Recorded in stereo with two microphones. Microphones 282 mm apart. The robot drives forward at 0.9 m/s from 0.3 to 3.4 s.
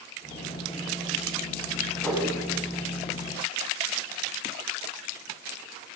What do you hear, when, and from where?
2.0 s a whoosh: 5° left (ahead or behind), 4.5 m